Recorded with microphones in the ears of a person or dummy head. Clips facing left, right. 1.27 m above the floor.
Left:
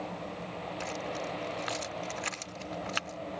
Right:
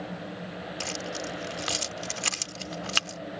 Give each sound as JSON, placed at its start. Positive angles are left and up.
{"t": 0.8, "sound": "keys jangling", "side_deg": -50}